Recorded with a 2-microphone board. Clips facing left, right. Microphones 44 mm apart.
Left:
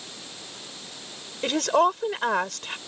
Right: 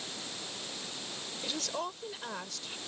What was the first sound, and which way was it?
A woman speaking, 60° left (ahead or behind).